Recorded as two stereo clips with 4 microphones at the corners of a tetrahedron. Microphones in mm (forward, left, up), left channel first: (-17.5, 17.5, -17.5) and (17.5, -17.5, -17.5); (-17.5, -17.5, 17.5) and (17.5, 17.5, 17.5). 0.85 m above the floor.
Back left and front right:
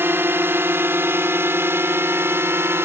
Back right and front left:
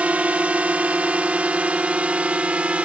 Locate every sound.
0.0 s a drone: 15° right